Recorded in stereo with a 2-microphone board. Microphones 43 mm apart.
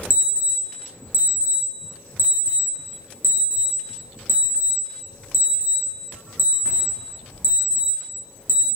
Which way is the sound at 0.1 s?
45° right (ahead or behind).